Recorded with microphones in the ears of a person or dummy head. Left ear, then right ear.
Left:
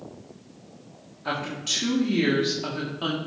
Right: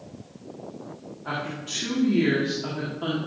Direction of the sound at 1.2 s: 80° left.